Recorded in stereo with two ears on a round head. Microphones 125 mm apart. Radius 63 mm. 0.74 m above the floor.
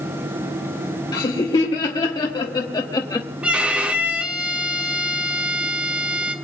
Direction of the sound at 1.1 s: 30° left (ahead or behind).